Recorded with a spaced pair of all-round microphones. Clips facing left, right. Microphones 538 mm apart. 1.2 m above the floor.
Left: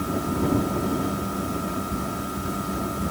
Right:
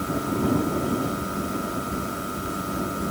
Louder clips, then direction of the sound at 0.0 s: Even; 15° left (ahead or behind).